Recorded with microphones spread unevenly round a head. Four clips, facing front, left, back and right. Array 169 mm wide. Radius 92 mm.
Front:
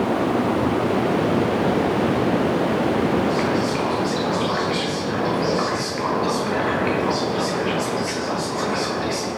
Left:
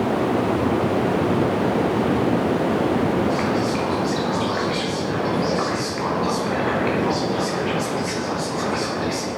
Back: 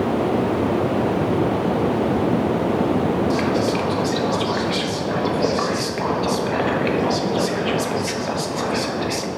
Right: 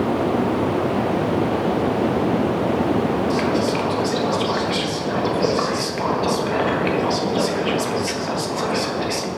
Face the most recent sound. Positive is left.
turn(degrees=-130)